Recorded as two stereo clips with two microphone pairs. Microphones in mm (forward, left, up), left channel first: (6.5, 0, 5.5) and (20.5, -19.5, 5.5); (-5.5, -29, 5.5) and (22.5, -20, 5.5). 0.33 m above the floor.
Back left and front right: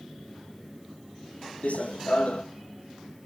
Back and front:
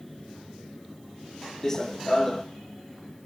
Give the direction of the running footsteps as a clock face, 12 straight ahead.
8 o'clock.